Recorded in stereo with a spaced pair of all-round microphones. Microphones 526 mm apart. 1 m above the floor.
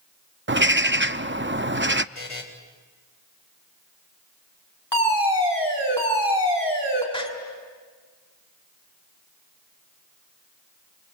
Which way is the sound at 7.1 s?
10° left (ahead or behind).